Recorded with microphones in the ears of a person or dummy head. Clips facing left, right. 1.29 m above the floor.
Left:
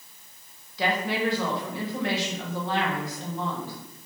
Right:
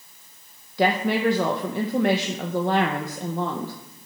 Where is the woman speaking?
45° right (ahead or behind), 1.0 m.